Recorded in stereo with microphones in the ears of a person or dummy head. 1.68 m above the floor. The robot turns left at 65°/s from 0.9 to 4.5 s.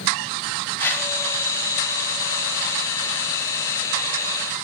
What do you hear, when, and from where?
0.8 s a whoosh: 10° left (ahead or behind), 1.4 m; by 1.1 s centre (ahead or behind), 1.4 m